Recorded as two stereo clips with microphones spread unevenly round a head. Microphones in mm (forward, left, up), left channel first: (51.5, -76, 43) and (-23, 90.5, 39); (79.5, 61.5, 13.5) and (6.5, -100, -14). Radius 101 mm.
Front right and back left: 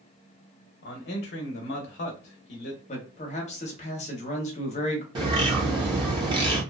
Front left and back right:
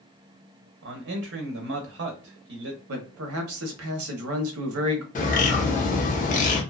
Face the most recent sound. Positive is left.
turn(degrees=50)